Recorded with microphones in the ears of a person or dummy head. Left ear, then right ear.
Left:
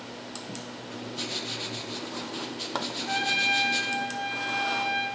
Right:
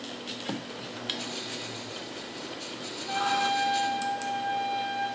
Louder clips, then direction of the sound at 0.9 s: Left 1 dB; 50° left (ahead or behind).